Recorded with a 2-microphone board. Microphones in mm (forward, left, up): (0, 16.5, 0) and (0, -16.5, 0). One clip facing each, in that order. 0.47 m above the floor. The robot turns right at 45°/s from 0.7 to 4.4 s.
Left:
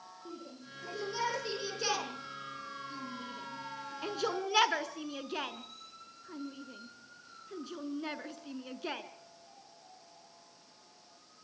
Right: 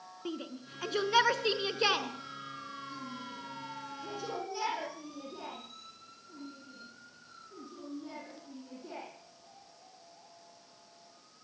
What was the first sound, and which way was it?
A shout, 80° right.